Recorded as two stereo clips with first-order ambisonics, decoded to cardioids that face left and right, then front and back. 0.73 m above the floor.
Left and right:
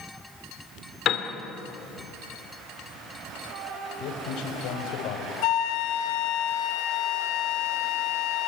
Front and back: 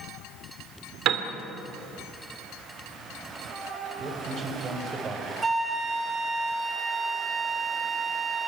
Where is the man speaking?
110° left, 3.5 m.